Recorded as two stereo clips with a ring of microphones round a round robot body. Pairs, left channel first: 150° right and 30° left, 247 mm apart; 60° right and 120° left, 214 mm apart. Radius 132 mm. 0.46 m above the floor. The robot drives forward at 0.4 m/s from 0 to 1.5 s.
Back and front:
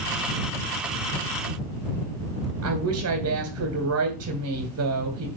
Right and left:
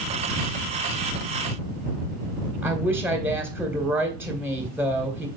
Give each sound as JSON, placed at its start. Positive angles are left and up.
{"t": 2.6, "sound": "a woman speaking", "azimuth_deg": 40, "distance_m": 2.5}